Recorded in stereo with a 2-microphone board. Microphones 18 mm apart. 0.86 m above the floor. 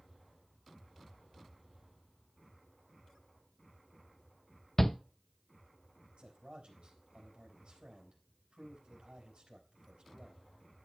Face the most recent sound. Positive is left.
turn(degrees=-70)  # may be behind; listen again after turning